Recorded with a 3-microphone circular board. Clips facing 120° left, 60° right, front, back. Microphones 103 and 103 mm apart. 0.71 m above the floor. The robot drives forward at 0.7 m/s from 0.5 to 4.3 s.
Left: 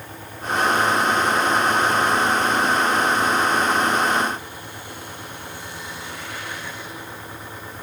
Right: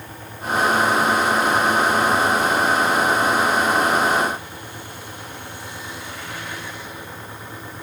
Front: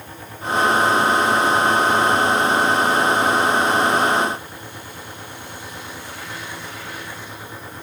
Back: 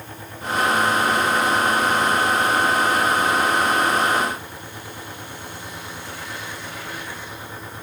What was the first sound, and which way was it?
Only background noise.